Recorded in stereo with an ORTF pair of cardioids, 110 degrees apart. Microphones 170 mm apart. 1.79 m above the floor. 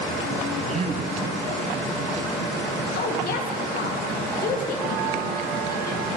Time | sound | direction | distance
0.6 | a man speaking | 40° right | 1.6 m
3.0 | a woman speaking | 60° left | 1.9 m